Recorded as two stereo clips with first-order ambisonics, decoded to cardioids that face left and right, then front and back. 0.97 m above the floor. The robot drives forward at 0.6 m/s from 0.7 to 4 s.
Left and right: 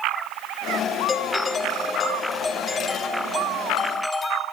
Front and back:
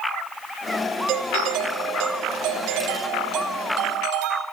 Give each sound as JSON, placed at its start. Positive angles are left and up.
{"t": 1.1, "sound": "a doorbell", "azimuth_deg": 155, "distance_m": 2.0}